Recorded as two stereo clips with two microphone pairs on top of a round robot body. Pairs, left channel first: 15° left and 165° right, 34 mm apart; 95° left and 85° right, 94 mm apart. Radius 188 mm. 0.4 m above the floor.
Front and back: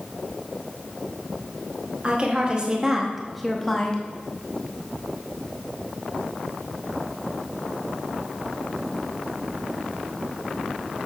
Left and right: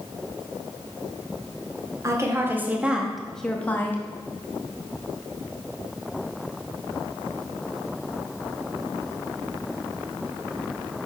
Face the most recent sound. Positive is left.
turn(degrees=50)